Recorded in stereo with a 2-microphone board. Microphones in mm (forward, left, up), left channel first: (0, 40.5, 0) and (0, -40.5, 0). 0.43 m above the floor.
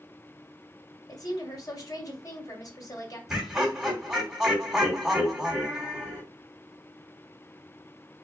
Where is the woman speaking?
50° left (ahead or behind), 1.9 m.